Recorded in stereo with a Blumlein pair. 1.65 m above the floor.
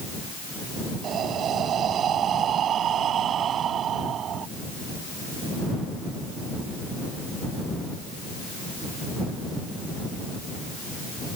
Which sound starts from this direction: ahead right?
Breathing, at 1.0 s.